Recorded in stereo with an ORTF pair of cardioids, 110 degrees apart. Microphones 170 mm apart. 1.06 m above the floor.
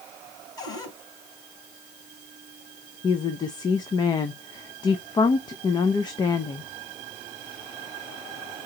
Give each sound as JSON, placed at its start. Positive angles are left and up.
{"t": 0.6, "sound": "a cupboard door", "azimuth_deg": 25, "distance_m": 3.5}
{"t": 3.0, "sound": "a woman speaking", "azimuth_deg": 25, "distance_m": 0.6}